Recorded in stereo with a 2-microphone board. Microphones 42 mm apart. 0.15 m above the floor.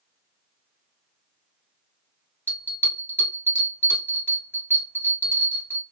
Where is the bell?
60° left (ahead or behind), 1.8 m.